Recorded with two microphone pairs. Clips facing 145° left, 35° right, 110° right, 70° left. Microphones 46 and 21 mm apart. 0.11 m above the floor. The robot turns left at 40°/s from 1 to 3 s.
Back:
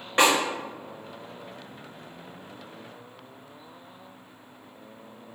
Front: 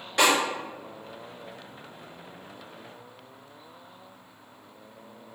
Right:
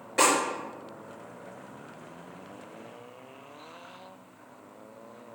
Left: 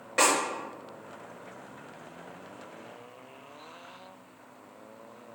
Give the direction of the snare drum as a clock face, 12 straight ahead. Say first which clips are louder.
Back 1 dB, right 1 dB; 8 o'clock.